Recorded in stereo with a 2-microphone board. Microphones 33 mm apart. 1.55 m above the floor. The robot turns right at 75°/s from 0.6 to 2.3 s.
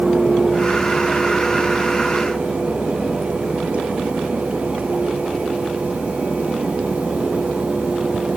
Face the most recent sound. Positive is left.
No sound to turn to.